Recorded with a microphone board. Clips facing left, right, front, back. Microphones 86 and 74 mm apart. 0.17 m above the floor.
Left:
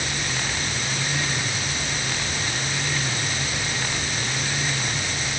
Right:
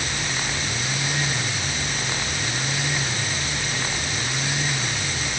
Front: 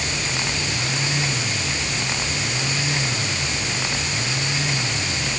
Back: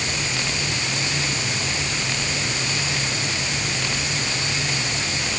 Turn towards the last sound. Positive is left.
No sound to turn to.